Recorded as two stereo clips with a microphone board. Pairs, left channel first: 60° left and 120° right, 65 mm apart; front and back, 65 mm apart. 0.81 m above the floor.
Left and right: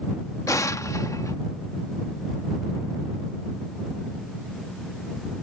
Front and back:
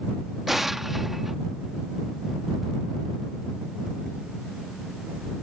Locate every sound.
0.5 s an explosion: 95° left